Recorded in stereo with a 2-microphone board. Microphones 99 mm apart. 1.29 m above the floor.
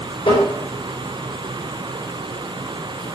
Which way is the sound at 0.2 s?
65° left (ahead or behind).